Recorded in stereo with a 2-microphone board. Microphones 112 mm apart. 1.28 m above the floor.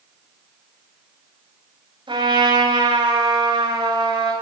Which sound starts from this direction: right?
A trumpet, at 2.1 s.